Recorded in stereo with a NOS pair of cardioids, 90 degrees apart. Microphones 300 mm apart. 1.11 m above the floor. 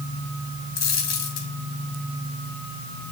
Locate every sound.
0.8 s a dropped coin: 55° left, 3 m